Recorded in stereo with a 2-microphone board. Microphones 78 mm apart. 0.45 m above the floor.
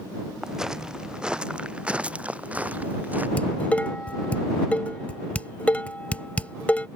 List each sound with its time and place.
0.4 s footsteps: 5° right (ahead or behind); by 3.3 s 20° right (ahead or behind)
3.4 s dishes clattering: 20° left (ahead or behind)